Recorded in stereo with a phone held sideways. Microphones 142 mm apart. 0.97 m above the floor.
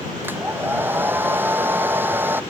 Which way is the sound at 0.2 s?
15° right (ahead or behind).